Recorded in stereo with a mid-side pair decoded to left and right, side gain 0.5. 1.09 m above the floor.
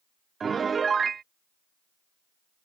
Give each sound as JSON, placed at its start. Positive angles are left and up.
{"t": 0.4, "sound": "a piano", "azimuth_deg": -35}